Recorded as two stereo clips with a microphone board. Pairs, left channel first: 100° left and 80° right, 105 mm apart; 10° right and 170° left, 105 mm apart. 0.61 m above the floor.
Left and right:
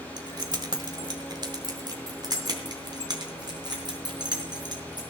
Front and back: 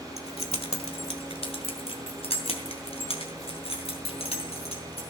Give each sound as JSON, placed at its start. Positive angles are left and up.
{"t": 0.2, "sound": "keys jangling", "azimuth_deg": -35, "distance_m": 1.2}